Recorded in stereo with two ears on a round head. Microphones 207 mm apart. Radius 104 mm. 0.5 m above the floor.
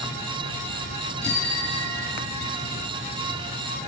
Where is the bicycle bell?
5° left (ahead or behind), 9 m; by 2.5 s centre (ahead or behind), 10 m.